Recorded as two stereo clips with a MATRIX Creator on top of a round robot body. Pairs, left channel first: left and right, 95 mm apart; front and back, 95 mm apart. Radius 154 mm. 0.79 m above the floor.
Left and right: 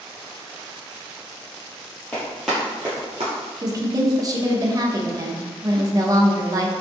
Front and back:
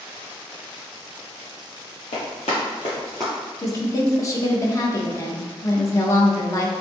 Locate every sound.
2.1 s running footsteps: 15° left, 1.2 m; by 3.3 s 80° right, 0.9 m
3.6 s a woman speaking: 45° right, 0.9 m